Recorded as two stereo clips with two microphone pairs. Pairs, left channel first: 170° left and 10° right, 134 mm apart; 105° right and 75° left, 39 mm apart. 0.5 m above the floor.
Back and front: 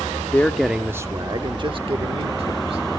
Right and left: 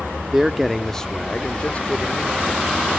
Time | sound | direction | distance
0.3 | a man speaking | 125° left | 0.7 m